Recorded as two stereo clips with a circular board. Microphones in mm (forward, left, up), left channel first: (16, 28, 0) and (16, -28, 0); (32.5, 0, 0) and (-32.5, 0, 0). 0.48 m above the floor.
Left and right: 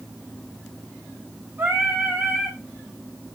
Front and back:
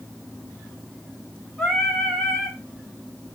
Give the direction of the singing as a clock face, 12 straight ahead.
3 o'clock.